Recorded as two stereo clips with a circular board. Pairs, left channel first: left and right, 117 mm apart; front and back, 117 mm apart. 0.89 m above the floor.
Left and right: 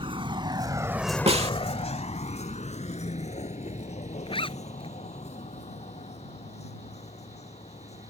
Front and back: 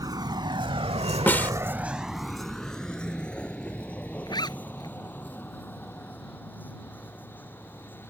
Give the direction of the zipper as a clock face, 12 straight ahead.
10 o'clock.